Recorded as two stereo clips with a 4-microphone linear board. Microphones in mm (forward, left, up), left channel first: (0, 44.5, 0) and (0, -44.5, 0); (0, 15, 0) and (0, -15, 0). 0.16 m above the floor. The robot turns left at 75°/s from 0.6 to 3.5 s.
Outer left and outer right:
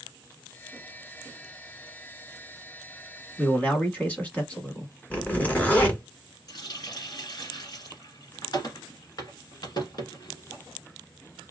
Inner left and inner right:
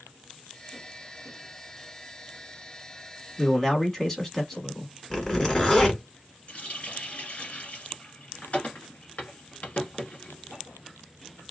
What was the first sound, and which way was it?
A man speaking, 15° left (ahead or behind).